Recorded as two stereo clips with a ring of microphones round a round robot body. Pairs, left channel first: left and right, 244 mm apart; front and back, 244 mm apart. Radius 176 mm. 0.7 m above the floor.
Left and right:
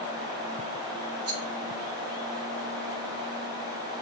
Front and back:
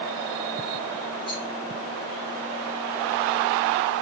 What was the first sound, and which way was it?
A rattle, 75° right.